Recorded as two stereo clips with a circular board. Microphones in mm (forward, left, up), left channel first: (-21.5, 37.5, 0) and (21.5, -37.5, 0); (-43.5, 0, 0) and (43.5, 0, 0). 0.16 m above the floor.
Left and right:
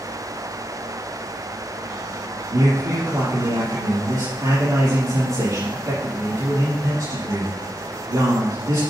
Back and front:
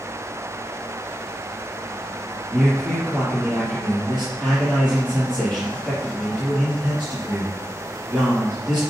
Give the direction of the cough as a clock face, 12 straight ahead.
No cough in this recording.